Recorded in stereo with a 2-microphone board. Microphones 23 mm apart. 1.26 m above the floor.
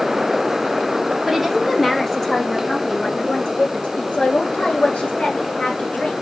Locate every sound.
1.3 s a woman speaking: centre (ahead or behind), 2 m; by 6.2 s 90° left, 3.5 m